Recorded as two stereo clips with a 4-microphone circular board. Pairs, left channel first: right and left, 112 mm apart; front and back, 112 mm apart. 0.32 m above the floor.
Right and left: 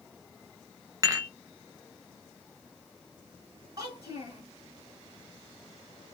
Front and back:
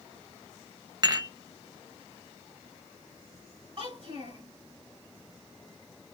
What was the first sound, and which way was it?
Dishes clattering, 140° left.